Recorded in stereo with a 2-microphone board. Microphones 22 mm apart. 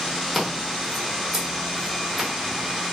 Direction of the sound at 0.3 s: Centre (ahead or behind).